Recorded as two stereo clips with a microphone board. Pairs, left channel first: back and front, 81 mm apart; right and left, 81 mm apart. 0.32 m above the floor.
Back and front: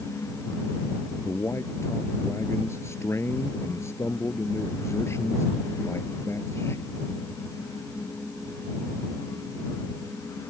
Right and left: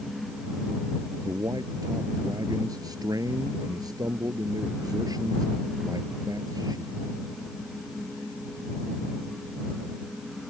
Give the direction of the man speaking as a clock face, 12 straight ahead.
8 o'clock.